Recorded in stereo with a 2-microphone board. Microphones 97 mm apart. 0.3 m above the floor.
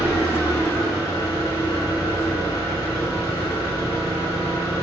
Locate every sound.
0.0 s an engine running: 35° left (ahead or behind), 1.3 m